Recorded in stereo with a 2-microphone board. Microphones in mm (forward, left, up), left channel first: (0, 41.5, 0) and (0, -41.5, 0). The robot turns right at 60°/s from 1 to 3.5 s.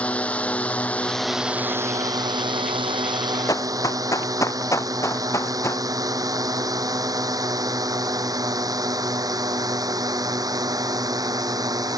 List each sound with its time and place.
0.0 s a drone: 15° left (ahead or behind); by 12.0 s 45° right (ahead or behind)
3.5 s running footsteps: 45° left (ahead or behind); by 5.8 s 35° left (ahead or behind)